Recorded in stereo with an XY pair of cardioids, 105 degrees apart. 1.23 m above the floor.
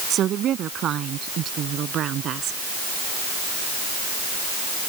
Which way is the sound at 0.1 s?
65° right.